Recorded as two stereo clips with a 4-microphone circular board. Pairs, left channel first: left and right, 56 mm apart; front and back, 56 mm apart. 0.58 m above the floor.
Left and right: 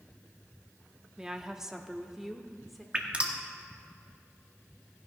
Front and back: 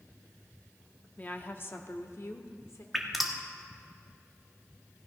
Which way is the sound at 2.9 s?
95° right.